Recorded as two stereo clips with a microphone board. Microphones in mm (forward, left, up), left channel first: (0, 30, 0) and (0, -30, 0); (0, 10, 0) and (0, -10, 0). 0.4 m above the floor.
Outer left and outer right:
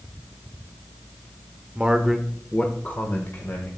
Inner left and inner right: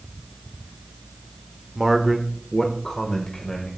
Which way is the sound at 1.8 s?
20° right (ahead or behind).